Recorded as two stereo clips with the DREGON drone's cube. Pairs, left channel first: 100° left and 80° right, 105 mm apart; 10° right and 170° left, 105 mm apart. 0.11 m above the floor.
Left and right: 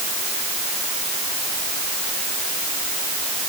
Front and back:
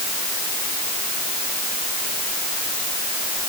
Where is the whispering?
No whispering in this recording.